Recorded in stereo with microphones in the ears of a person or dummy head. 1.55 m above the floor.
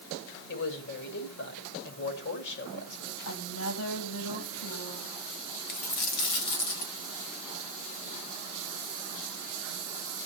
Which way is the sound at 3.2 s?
90° left.